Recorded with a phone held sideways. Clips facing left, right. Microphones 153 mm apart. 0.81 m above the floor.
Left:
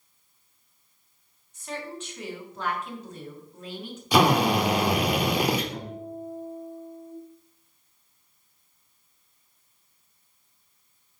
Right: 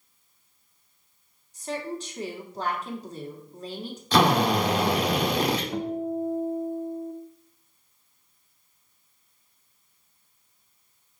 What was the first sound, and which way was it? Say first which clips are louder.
A woman speaking: right 4 dB; 35° right (ahead or behind).